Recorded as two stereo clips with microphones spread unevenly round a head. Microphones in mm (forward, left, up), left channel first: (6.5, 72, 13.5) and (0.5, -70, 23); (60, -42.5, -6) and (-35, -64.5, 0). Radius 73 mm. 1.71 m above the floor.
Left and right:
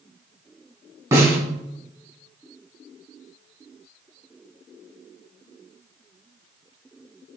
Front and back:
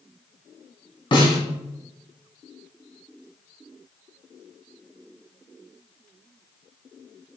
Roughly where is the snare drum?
Ahead right.